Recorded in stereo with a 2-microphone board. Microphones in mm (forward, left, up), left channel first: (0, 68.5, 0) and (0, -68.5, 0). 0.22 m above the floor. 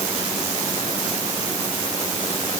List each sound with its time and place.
Only background noise.